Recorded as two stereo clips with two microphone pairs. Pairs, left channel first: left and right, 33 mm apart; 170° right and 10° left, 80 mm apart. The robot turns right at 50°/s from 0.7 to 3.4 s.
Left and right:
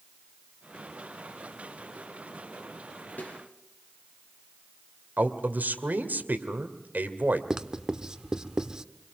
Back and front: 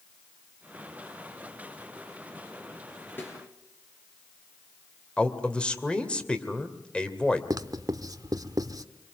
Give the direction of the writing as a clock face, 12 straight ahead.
1 o'clock.